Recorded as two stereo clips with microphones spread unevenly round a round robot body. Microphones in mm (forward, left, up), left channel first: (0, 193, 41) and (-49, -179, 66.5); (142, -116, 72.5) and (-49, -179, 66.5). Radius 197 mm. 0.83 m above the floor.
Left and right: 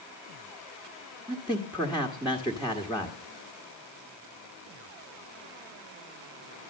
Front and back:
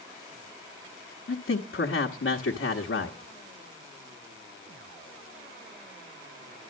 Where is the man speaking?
10° right, 1.5 m.